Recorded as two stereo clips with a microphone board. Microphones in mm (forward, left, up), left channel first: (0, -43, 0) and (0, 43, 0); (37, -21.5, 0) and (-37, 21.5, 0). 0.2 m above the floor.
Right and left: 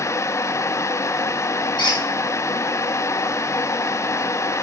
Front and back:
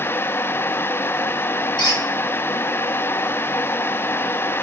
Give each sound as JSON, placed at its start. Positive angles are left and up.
{"t": 1.8, "sound": "a squeak", "azimuth_deg": -65, "distance_m": 1.9}